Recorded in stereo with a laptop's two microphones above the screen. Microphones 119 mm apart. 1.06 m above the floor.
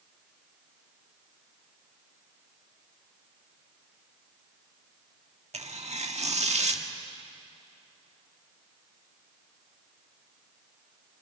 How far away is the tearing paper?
About 1.7 m.